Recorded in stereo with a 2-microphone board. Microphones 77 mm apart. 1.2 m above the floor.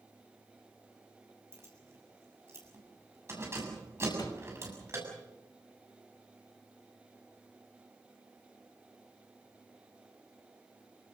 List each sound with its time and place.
1.5 s keys jangling: 35° right (ahead or behind), 7 m
4.1 s a door slam: 60° left (ahead or behind), 4 m